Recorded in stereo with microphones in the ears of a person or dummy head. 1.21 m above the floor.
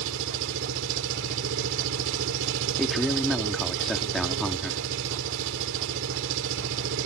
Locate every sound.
0.0 s an engine running: 70° right (ahead or behind)
2.8 s a man speaking: centre (ahead or behind)